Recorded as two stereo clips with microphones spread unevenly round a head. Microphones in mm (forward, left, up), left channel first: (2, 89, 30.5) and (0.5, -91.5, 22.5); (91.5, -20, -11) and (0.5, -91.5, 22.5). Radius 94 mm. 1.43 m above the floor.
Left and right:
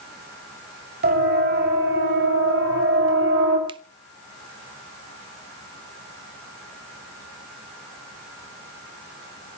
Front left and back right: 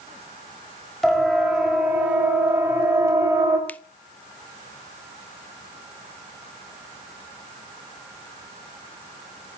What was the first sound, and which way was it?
A siren, 50° right.